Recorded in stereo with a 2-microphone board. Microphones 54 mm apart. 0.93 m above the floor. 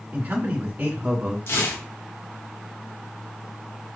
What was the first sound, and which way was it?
A man speaking, 30° right (ahead or behind).